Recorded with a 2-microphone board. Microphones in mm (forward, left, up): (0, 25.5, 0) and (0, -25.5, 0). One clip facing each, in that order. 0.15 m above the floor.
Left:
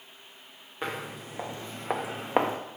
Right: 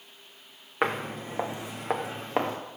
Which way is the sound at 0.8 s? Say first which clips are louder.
Right 6 dB; 50° right (ahead or behind).